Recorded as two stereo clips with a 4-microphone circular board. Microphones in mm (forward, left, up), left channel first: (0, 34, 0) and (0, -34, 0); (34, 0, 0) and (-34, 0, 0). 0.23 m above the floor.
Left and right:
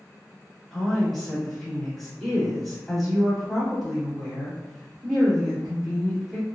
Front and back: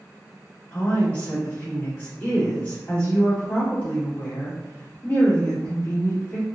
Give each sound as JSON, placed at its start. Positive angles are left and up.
{"t": 0.7, "sound": "a woman speaking", "azimuth_deg": 15, "distance_m": 1.2}